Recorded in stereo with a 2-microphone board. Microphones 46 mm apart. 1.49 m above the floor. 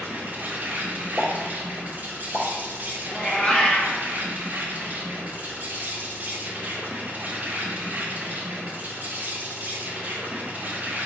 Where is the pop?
15° right (ahead or behind), 1.0 m.